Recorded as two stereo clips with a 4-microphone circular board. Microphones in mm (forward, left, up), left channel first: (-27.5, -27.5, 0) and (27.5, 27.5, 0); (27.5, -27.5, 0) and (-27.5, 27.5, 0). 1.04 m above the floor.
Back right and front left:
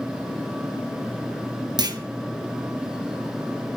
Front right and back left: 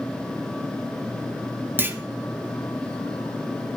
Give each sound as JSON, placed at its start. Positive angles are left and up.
{"t": 1.8, "sound": "a clunk", "azimuth_deg": 70, "distance_m": 1.0}